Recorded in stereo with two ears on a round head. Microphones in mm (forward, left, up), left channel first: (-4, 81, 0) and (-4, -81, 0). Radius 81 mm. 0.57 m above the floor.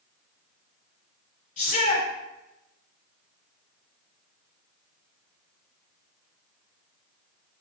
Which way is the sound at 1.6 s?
45° left (ahead or behind).